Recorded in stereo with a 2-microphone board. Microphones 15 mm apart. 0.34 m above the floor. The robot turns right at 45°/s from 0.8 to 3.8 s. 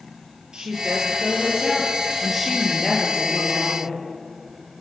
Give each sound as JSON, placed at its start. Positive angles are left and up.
{"t": 0.5, "sound": "a woman speaking", "azimuth_deg": -65, "distance_m": 8.5}